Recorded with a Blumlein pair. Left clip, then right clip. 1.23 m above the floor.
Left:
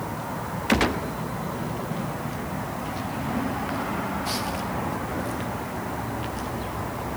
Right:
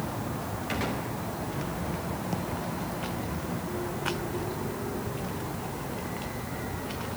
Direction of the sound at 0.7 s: 60° left.